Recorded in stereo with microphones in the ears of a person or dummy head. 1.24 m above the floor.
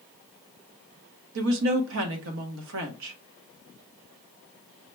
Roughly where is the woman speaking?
Right.